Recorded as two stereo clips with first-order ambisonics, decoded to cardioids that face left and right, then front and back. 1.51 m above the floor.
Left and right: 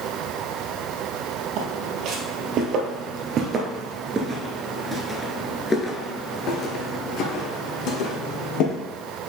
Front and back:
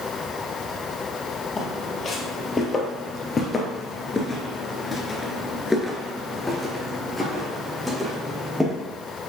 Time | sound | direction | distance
1.6 | footsteps | 70° right | 2.5 m